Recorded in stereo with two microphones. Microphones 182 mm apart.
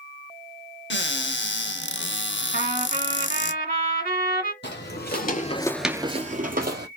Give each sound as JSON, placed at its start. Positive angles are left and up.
{"t": 0.9, "sound": "a cupboard door", "side_deg": 70, "distance_m": 0.5}
{"t": 2.5, "sound": "a trumpet", "side_deg": -50, "distance_m": 1.3}
{"t": 4.6, "sound": "footsteps", "side_deg": 65, "distance_m": 1.2}